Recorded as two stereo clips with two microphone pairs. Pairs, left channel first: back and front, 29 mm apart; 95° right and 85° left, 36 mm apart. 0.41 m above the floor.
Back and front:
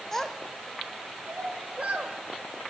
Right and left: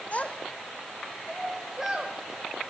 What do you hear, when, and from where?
0.1 s a child speaking: 105° right, 1.0 m; by 2.7 s 25° left, 1.7 m